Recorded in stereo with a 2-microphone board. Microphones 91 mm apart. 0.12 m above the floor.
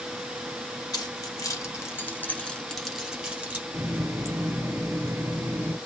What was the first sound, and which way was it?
Keys jangling, 45° left (ahead or behind).